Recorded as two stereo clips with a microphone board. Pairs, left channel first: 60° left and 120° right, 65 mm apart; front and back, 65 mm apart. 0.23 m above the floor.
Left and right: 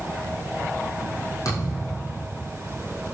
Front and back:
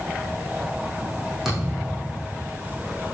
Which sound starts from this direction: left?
A thud, at 1.4 s.